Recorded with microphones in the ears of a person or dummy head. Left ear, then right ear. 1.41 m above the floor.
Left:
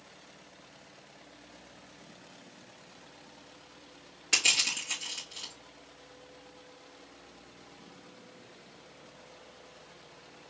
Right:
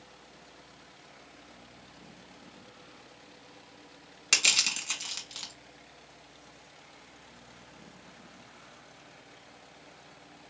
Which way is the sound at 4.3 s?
80° right.